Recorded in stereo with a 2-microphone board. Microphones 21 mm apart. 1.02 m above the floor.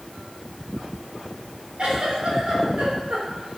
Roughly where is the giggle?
Right.